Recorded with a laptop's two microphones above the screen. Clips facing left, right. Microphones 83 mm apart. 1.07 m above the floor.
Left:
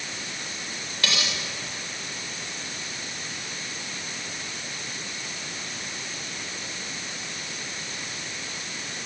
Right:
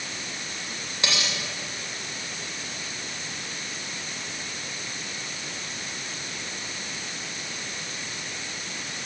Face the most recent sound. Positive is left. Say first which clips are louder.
# even
turn(degrees=-20)  # may be behind; listen again after turning